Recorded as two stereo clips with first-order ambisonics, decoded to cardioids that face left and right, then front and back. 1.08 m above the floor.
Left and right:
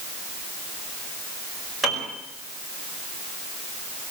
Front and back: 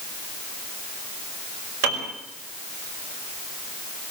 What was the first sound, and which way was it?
A piano, 170° right.